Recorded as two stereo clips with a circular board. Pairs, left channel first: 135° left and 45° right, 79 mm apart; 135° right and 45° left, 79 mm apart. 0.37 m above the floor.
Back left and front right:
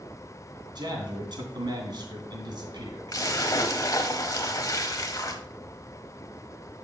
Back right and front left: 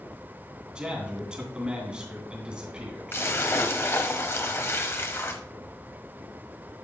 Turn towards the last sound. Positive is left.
turn(degrees=170)